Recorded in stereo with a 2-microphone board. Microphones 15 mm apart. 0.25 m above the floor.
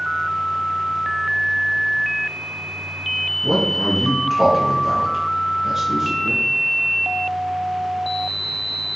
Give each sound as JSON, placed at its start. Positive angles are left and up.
{"t": 3.4, "sound": "a man speaking", "side_deg": -10, "distance_m": 2.5}